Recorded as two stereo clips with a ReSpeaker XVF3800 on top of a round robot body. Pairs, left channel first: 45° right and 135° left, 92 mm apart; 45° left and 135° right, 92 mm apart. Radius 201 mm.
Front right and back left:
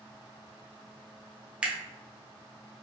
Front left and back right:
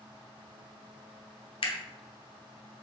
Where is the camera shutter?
60° left, 1.0 m.